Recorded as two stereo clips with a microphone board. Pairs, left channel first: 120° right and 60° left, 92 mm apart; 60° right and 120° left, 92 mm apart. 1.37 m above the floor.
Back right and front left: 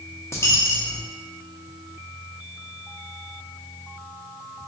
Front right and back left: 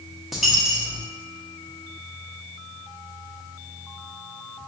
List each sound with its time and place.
0.3 s a dropped coin: 150° right, 0.7 m